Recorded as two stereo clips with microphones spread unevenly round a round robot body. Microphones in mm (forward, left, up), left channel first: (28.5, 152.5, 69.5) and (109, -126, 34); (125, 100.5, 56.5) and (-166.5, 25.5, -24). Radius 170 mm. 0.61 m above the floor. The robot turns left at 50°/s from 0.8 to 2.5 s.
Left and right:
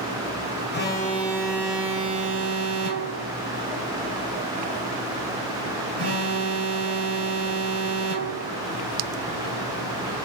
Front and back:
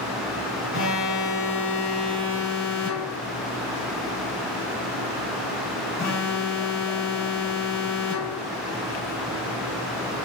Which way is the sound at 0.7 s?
50° left.